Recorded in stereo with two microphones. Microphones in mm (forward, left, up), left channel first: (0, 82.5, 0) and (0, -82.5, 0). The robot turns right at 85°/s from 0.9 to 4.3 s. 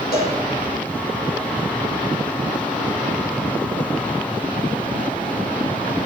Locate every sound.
0.1 s a cowbell: 70° left (ahead or behind), 4 m